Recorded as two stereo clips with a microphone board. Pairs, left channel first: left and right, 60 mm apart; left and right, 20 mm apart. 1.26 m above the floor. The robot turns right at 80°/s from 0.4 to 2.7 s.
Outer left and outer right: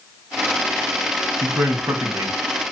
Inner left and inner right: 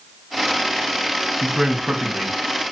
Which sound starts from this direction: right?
A man speaking, at 1.4 s.